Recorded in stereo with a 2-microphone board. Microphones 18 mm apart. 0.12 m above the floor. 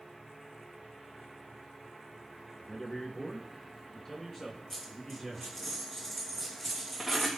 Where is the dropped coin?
20° left (ahead or behind), 3 m.